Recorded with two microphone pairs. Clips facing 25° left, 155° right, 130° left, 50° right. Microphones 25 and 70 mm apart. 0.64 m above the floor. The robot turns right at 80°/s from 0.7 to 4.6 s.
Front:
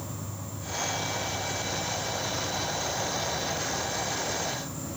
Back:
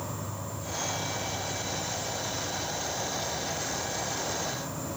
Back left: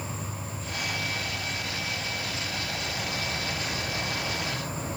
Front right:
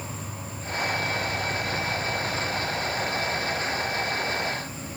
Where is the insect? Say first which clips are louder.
Back 2 dB, even; 150° right, 1.1 m; by 5.0 s 165° left, 1.1 m.